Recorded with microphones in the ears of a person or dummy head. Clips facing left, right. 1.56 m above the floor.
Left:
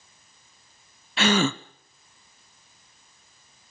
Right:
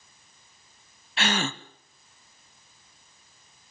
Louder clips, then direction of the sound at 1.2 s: Left 7 dB; 70° left (ahead or behind).